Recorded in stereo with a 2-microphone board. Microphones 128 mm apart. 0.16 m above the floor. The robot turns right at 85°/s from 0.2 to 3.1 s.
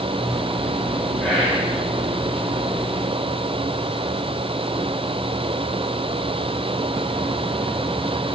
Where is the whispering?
165° left, 2 m; by 1.7 s 155° right, 2 m.